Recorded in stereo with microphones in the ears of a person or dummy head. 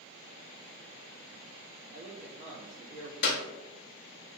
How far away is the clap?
About 0.7 m.